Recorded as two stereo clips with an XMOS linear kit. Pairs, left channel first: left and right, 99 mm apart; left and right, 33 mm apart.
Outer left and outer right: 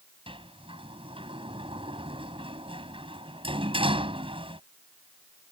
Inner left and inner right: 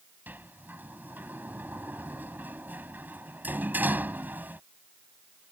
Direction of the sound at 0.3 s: 65° right (ahead or behind).